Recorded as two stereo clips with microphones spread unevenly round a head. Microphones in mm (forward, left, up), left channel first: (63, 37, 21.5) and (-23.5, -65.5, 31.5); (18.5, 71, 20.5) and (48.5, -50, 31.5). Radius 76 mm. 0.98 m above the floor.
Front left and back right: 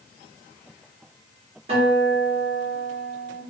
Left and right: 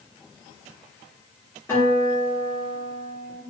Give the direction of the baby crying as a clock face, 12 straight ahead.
I don't hear a baby crying.